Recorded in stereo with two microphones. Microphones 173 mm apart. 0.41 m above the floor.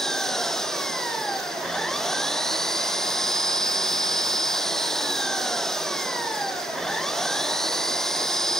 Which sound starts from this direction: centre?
An engine running, at 0.0 s.